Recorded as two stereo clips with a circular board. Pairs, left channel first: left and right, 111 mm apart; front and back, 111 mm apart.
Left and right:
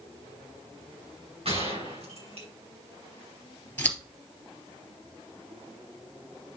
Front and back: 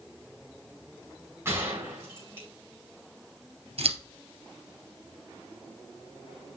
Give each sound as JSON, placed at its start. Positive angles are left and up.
{"t": 1.4, "sound": "a gunshot", "azimuth_deg": -115, "distance_m": 4.5}
{"t": 3.8, "sound": "scissors", "azimuth_deg": 165, "distance_m": 2.5}